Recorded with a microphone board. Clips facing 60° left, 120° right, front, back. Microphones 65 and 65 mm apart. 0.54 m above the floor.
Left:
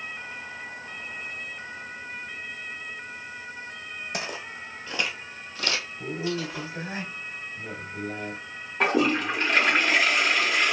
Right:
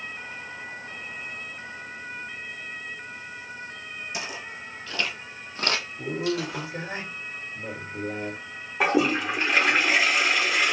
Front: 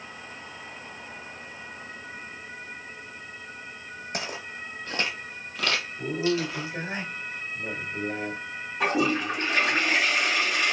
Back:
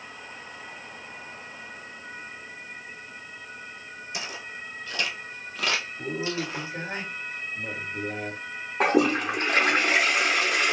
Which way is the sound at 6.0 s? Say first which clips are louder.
Right 3 dB, front 4 dB; 80° right.